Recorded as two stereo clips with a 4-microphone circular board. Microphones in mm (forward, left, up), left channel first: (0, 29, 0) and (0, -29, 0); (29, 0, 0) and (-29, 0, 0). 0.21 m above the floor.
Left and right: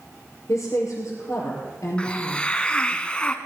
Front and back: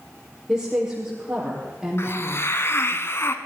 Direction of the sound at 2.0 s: 20° left.